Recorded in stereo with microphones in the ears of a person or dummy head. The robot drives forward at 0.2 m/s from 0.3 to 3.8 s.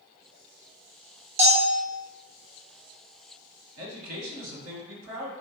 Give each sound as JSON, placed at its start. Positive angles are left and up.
{"t": 1.4, "sound": "a bell", "side_deg": -30, "distance_m": 0.6}
{"t": 3.8, "sound": "a man speaking", "side_deg": -75, "distance_m": 0.9}